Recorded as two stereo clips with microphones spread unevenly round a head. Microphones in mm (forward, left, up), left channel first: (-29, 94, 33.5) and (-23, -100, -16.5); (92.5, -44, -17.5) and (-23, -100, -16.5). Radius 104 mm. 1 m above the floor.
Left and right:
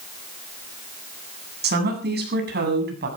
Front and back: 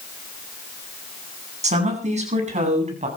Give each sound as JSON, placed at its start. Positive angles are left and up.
{"t": 1.6, "sound": "a woman speaking", "azimuth_deg": -125, "distance_m": 9.5}